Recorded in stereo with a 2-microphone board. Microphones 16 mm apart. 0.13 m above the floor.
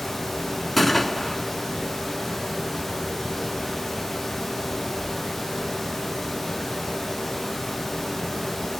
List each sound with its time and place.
0.8 s a gunshot: 5° left (ahead or behind), 1.6 m